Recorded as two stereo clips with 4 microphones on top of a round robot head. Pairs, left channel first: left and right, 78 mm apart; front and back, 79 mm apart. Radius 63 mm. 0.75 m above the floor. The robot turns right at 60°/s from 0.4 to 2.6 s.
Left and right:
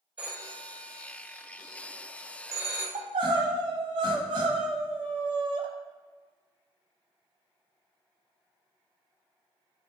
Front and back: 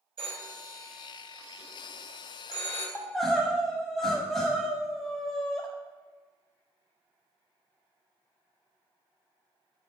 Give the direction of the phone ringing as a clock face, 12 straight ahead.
6 o'clock.